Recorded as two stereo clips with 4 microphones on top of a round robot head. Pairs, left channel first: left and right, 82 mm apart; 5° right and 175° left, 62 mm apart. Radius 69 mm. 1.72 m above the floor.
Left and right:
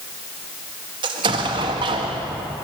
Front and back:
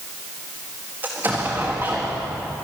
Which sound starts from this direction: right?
An explosion, at 1.0 s.